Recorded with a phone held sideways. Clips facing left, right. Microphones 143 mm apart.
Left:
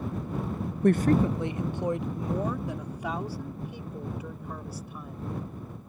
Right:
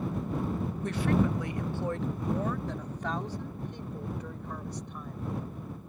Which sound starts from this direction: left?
A woman speaking, at 0.8 s.